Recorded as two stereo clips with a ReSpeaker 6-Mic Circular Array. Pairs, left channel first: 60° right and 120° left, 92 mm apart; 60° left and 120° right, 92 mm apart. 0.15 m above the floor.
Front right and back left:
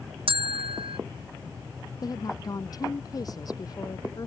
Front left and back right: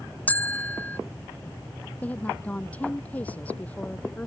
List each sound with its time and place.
0.3 s a bell: 130° left
2.0 s a woman speaking: 15° right